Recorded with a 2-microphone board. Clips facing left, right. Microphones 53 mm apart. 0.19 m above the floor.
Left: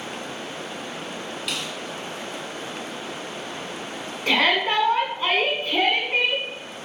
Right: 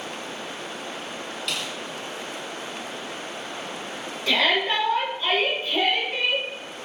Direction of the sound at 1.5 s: 5° left (ahead or behind).